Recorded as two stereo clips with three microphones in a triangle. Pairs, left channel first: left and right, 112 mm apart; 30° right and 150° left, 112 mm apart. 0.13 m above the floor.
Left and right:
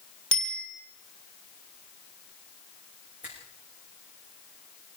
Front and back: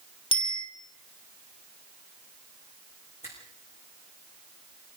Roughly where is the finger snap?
Ahead.